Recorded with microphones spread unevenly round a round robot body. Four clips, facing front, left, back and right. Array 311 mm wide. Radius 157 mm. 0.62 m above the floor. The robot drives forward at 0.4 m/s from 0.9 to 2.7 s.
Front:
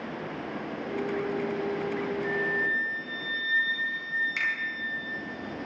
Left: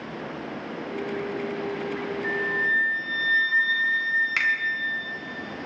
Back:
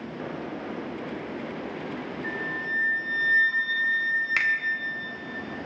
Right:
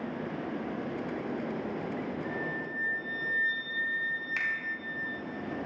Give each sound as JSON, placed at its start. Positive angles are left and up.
{"t": 2.2, "sound": "a flute", "azimuth_deg": 90, "distance_m": 3.5}
{"t": 4.4, "sound": "a finger snap", "azimuth_deg": 135, "distance_m": 2.5}